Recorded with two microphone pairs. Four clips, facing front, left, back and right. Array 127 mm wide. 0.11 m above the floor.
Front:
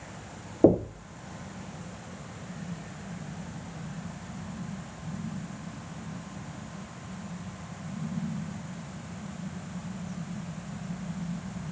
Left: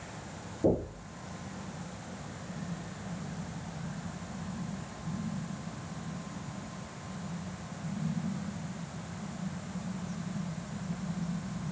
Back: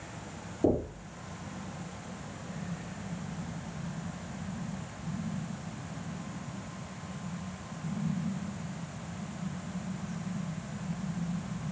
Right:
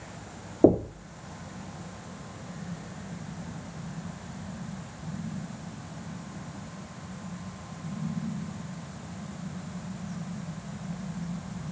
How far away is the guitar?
No guitar in this recording.